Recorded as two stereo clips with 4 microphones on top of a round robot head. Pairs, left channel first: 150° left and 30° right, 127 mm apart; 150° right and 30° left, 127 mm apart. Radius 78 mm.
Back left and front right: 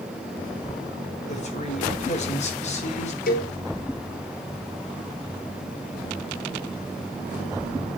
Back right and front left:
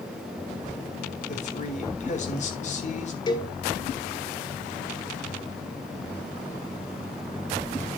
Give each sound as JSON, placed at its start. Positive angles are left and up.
{"t": 1.3, "sound": "a man speaking", "azimuth_deg": -175, "distance_m": 3.5}
{"t": 3.3, "sound": "a cowbell", "azimuth_deg": 150, "distance_m": 2.0}